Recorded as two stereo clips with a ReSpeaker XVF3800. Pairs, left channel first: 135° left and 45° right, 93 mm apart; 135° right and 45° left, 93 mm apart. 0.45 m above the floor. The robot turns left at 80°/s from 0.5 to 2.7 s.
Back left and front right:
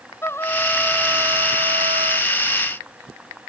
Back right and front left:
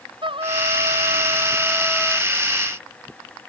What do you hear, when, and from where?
0.2 s a trumpet: 70° left; by 2.3 s 75° right